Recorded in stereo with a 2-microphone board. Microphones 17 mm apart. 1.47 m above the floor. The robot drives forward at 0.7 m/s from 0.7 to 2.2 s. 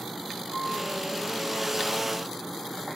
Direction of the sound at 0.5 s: 85° right.